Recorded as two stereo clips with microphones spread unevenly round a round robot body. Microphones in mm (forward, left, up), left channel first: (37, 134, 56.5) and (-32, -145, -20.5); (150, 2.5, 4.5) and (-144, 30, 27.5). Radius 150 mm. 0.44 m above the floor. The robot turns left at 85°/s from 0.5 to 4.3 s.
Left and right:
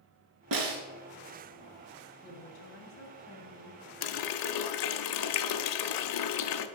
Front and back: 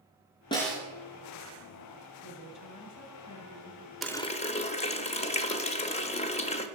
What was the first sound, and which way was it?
A snare drum, 80° right.